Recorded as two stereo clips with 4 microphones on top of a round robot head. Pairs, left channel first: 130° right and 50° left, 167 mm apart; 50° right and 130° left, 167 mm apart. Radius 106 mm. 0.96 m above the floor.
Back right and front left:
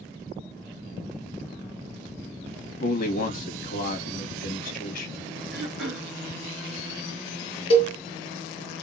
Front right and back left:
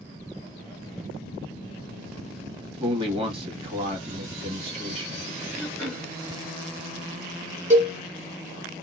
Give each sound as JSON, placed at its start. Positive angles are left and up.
{"t": 2.8, "sound": "a man speaking", "azimuth_deg": -170, "distance_m": 1.4}
{"t": 5.5, "sound": "throat clearing", "azimuth_deg": 130, "distance_m": 2.5}
{"t": 7.7, "sound": "a cowbell", "azimuth_deg": 175, "distance_m": 1.2}